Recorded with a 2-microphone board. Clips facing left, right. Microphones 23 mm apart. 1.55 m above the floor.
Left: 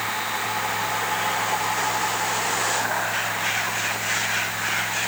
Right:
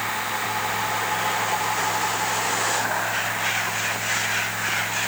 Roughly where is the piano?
I don't hear a piano.